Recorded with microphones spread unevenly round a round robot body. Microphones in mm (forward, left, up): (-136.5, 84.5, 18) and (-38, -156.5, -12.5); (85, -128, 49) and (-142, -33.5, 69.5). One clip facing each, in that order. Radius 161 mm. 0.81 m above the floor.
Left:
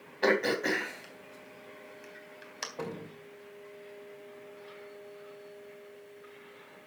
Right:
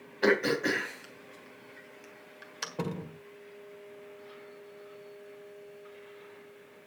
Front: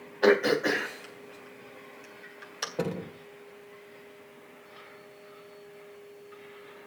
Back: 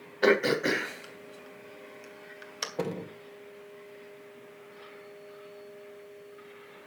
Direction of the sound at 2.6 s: 110° right.